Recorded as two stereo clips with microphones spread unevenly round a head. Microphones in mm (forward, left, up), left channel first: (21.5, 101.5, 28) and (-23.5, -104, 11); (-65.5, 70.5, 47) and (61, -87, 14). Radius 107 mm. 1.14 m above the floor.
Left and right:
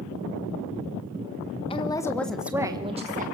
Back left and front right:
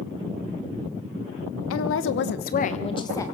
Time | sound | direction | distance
1.7 | a woman speaking | 145° left | 1.4 m